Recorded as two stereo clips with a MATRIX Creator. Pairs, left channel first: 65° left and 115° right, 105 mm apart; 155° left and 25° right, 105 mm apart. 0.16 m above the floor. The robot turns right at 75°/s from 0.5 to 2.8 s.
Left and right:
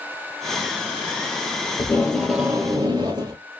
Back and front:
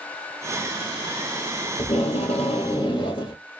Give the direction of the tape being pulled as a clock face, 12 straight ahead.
8 o'clock.